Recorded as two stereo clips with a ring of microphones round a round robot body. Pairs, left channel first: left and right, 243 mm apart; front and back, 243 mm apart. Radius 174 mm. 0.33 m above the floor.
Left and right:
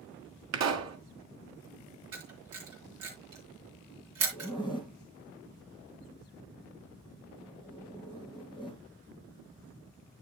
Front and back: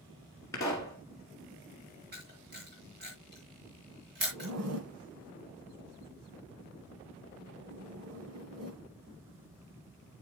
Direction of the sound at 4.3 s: 175° right.